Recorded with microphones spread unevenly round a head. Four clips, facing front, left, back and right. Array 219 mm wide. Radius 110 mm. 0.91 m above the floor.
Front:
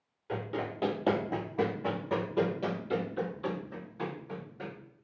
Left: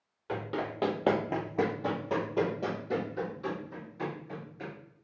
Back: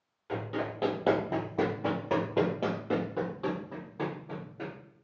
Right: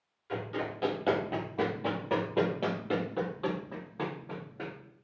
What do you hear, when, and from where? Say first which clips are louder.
0.3 s running footsteps: left 1 dB, back 1 dB; 75° left, 1.4 m; by 4.7 s 130° right, 2 m